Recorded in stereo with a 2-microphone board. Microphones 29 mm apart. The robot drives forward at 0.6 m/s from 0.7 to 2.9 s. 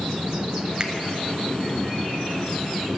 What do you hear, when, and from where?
0.8 s a finger snap: 30° right (ahead or behind), 0.9 m